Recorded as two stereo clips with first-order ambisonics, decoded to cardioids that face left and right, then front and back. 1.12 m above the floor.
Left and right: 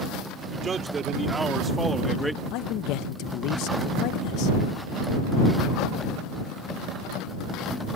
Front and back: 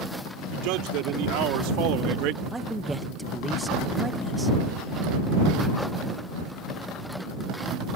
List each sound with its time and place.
0.5 s a man speaking: 160° right; by 2.4 s straight behind
2.5 s a man speaking: 100° left